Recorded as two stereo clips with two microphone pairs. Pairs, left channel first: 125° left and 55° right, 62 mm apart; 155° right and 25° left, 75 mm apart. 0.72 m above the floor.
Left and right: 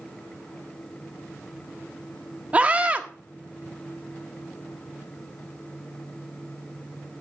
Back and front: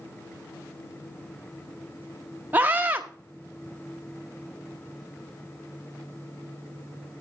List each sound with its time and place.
2.5 s a scream: 20° right, 1.0 m